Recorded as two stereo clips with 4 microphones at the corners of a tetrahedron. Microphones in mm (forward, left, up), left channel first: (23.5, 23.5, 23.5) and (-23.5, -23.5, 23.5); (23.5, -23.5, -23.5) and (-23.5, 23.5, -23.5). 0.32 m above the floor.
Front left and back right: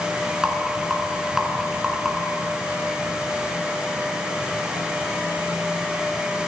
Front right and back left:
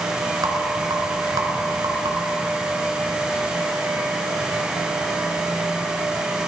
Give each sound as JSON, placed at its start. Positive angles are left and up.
{"t": 0.4, "sound": "a rattle", "azimuth_deg": 145, "distance_m": 1.0}